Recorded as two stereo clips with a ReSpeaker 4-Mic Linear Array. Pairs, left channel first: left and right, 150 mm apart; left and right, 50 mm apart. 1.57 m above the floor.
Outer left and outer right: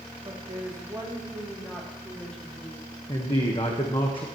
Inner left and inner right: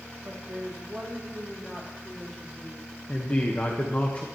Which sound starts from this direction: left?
A man speaking, at 3.1 s.